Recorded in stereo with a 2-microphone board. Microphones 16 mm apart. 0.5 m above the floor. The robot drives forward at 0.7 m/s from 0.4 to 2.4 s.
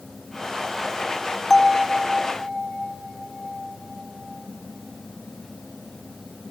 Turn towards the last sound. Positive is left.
turn(degrees=10)  # may be behind; listen again after turning